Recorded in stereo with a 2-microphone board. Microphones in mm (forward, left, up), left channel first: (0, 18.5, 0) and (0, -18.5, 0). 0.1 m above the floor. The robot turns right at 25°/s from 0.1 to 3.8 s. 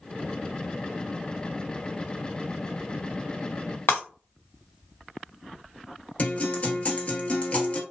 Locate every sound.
3.9 s breaking glass: 80° left, 1.5 m
6.2 s a guitar: 35° left (ahead or behind), 1.0 m